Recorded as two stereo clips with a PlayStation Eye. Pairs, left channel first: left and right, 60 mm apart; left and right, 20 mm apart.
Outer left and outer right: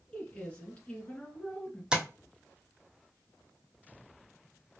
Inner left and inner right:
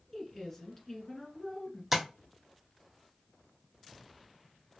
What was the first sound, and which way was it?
A woman speaking, 20° left (ahead or behind).